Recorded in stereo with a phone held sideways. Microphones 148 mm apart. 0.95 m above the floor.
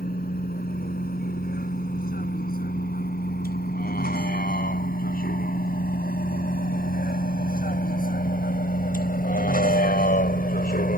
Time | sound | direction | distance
0.0 | a vehicle | 85° left | ?